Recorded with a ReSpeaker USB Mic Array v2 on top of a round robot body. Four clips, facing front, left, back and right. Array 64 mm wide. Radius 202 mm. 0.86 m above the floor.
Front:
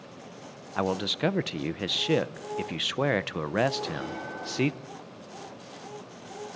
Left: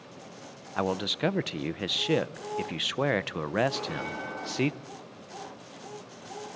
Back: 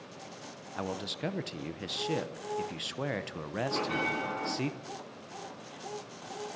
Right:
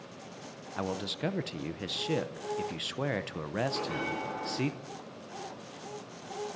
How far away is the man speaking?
About 1.0 m.